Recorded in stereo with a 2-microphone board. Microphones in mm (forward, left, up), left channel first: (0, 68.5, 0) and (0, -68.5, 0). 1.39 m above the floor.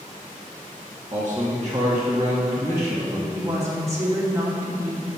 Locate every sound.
1.1 s a man speaking: 20° right (ahead or behind), 1.4 m
3.3 s a woman speaking: 20° right (ahead or behind), 2.5 m